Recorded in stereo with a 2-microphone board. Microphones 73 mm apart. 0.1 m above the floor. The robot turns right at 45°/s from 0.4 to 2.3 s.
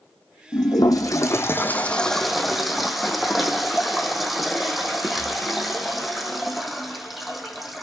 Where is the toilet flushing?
105° left, 1.1 m; by 7.8 s 175° right, 1.1 m.